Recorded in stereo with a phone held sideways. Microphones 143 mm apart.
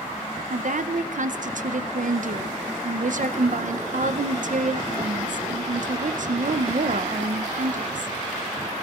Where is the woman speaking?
65° right (ahead or behind), 0.6 m.